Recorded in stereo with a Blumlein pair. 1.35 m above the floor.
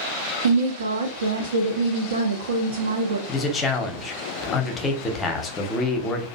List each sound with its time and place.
0.4 s a woman speaking: 70° right, 0.5 m
3.3 s a man speaking: 20° left, 0.7 m